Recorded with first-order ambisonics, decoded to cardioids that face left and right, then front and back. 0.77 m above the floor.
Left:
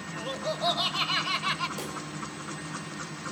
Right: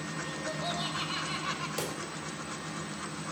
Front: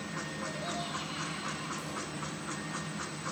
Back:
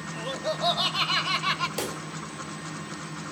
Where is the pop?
165° right, 2.5 m.